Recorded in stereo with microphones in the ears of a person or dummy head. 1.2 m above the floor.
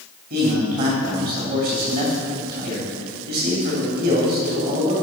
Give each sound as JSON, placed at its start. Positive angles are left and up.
{"t": 0.3, "sound": "a man speaking", "side_deg": -50, "distance_m": 3.0}